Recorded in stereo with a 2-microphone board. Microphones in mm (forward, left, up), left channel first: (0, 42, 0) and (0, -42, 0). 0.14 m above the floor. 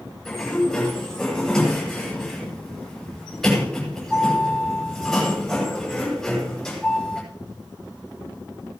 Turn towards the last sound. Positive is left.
turn(degrees=5)  # may be behind; listen again after turning